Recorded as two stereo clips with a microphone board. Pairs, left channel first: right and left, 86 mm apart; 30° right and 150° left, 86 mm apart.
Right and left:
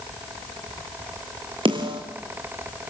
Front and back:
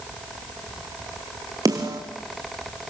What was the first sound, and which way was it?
A snare drum, 105° left.